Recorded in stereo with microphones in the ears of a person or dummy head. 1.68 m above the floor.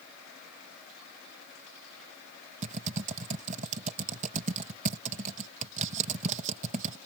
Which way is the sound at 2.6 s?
45° right (ahead or behind).